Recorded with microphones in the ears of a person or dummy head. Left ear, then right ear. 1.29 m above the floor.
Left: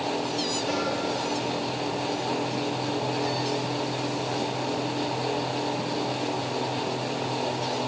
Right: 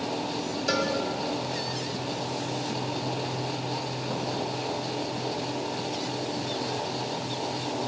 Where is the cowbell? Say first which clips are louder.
Right 6 dB; 75° right (ahead or behind), 1.7 m.